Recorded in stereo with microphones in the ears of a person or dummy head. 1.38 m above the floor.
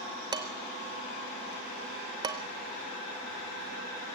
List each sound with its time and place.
0.3 s dishes clattering: 20° right (ahead or behind), 0.6 m